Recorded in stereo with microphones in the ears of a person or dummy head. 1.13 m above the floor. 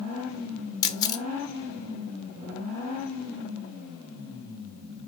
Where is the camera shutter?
20° left (ahead or behind), 0.5 m.